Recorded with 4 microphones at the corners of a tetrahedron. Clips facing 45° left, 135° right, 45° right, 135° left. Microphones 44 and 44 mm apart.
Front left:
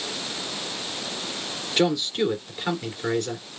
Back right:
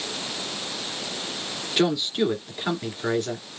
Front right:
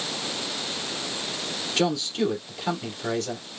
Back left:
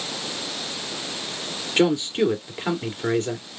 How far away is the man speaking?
About 2 m.